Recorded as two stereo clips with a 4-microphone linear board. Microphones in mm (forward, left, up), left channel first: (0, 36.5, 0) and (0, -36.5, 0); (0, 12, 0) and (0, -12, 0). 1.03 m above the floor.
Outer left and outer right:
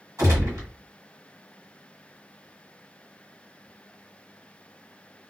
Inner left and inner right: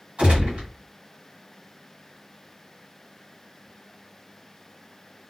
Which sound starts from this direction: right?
A gunshot, at 0.2 s.